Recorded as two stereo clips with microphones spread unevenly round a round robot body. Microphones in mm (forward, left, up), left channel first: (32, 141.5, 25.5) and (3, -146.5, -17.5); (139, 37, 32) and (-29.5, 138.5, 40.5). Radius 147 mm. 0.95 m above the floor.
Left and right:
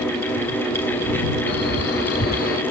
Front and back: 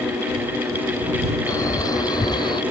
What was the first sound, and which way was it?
A man speaking, 40° left.